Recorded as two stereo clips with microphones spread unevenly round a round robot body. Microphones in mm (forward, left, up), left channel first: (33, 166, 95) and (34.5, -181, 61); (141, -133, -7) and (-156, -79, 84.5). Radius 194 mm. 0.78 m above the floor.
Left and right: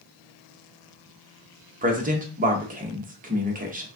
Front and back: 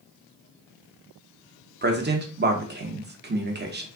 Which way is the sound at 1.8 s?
130° right.